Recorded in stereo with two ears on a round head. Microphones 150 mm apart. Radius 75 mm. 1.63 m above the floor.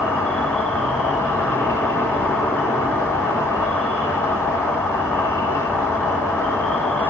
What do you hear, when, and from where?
0.0 s an insect: 15° left (ahead or behind), 1.6 m